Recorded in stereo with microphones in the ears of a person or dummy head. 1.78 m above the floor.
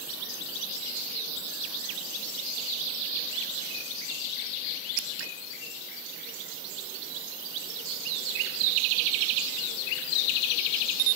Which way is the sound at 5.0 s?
70° right (ahead or behind).